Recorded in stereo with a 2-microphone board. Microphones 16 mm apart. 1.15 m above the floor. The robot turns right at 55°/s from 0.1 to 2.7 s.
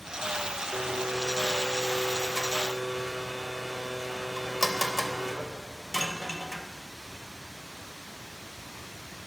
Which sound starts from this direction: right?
A blender, at 0.7 s.